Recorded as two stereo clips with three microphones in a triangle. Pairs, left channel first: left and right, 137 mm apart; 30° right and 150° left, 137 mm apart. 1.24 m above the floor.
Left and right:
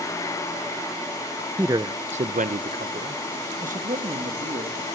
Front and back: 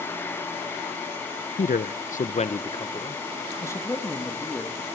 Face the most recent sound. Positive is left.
turn(degrees=-110)